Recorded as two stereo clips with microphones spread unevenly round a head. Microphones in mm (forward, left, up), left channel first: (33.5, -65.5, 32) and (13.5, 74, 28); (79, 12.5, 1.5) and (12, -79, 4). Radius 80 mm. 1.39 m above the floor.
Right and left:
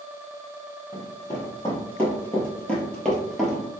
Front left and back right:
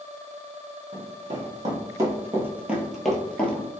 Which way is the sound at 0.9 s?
150° right.